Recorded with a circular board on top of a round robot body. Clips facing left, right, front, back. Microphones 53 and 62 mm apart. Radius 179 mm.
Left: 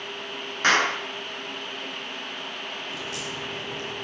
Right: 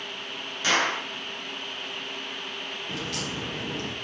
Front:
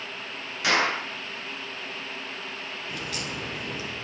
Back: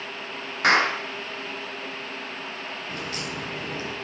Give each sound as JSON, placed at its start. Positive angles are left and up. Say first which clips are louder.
{"t": 0.6, "sound": "a clap", "louder": "left 3 dB, back 4 dB", "azimuth_deg": 135, "distance_m": 6.5}
{"t": 2.9, "sound": "a crack", "louder": "right 1 dB, back 1 dB", "azimuth_deg": -125, "distance_m": 9.5}